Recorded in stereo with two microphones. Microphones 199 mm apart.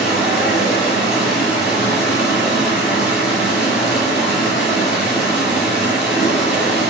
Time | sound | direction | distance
0.0 | running water | 5° right (ahead or behind) | 1.7 m